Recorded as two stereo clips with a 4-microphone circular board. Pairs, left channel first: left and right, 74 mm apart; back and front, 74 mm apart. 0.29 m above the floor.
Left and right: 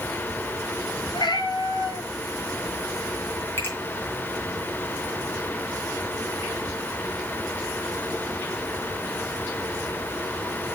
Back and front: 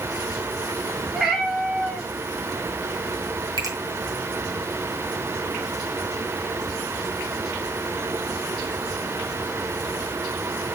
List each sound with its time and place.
1.1 s a cat meowing: 80° left, 2.5 m
3.6 s a finger snap: 30° left, 3.5 m